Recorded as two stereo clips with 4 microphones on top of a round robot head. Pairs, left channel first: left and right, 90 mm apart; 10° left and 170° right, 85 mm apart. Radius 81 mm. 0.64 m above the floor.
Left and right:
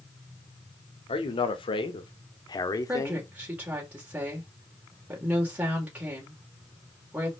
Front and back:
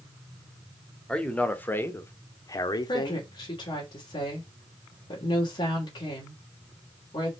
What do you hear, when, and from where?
1.1 s a man speaking: 85° left, 1.9 m; by 3.3 s 30° left, 1.4 m
2.9 s a woman speaking: 20° right, 3 m